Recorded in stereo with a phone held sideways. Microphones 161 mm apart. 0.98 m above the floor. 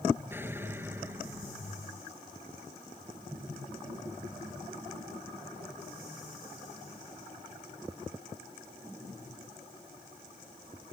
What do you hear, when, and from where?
0.3 s an explosion: 15° right (ahead or behind)